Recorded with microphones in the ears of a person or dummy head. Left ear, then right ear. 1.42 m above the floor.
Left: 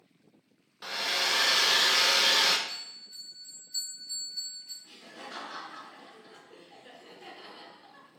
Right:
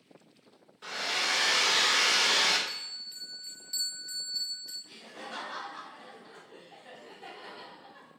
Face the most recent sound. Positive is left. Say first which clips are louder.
# right 1 dB
turn(degrees=35)  # may be behind; listen again after turning